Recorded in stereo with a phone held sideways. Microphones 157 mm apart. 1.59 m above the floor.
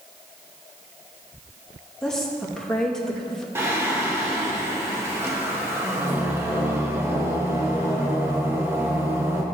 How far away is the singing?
About 1.5 m.